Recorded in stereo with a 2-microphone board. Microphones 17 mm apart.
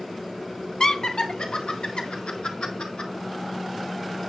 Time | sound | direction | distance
0.8 | laughter | 50° left (ahead or behind) | 1.7 m